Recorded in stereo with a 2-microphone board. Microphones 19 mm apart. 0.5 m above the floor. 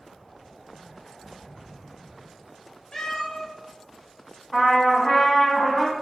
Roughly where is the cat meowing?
Centre.